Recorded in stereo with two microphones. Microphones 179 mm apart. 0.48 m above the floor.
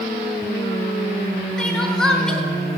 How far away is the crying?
About 0.6 m.